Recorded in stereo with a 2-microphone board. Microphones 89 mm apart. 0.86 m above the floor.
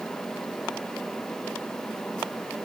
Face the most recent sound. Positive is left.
No sound to turn to.